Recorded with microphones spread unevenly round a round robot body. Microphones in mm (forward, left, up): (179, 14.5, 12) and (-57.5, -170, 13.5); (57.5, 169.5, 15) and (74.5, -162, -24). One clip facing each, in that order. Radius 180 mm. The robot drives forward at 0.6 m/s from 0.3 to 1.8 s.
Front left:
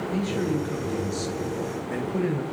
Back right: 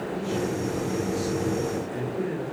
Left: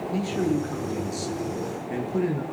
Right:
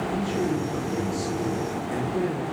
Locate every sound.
0.1 s a man speaking: 25° left, 9.5 m; by 2.4 s 30° left, 8.5 m